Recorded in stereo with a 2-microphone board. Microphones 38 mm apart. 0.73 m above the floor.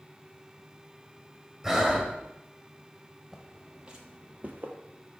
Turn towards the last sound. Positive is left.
turn(degrees=-50)  # may be behind; listen again after turning